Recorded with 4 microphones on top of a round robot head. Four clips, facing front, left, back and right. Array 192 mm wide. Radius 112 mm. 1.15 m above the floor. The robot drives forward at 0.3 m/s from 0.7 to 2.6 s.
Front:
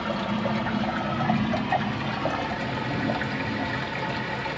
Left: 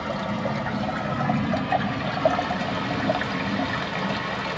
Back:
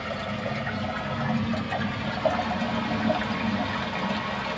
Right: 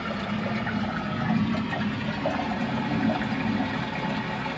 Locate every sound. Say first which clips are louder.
0.0 s running water: left 3 dB, front 4 dB; 60° left, 1.4 m; by 4.6 s 90° left, 1.3 m